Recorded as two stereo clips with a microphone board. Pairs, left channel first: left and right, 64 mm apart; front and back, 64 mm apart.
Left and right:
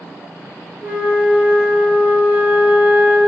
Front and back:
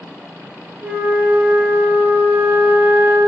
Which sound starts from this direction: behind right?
A flute, at 0.8 s.